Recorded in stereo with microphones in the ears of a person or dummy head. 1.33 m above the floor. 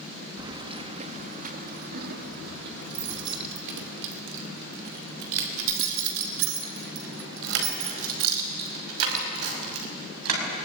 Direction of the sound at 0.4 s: 20° right (ahead or behind).